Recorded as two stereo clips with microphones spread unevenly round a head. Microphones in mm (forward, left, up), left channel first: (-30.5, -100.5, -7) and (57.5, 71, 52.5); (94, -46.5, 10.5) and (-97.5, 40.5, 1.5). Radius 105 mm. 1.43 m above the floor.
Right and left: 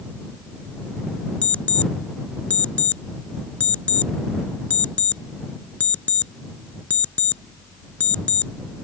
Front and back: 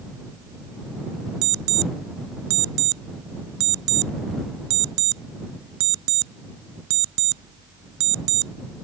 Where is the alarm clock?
155° left.